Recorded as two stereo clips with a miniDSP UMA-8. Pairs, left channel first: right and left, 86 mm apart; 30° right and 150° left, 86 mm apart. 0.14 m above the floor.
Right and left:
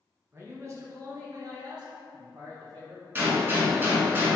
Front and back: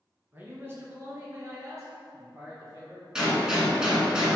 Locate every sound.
0.3 s a man speaking: 105° left, 1.7 m; by 3.0 s 110° left, 3.5 m
3.1 s a gunshot: 80° left, 1.6 m